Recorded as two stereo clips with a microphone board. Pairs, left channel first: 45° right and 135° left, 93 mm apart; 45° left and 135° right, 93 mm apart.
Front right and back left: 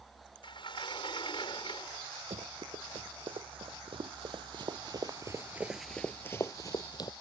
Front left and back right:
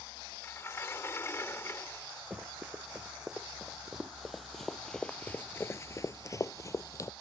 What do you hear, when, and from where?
0.4 s a sliding door: 20° right
2.3 s running footsteps: 145° left; by 7.1 s 10° right